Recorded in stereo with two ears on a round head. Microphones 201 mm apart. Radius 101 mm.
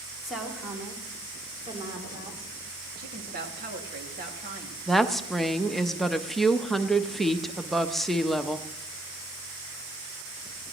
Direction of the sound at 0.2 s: Centre (ahead or behind).